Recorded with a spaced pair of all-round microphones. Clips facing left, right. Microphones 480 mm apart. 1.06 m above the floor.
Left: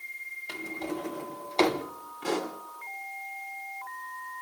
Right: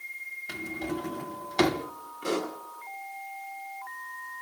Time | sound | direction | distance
0.5 | a drawer | 35° right (ahead or behind) | 1.5 m
2.2 | a pop | 10° left (ahead or behind) | 3 m